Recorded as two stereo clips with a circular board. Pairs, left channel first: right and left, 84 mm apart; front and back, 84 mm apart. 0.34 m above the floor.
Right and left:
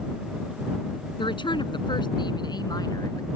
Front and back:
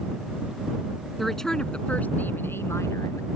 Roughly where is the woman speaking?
Right.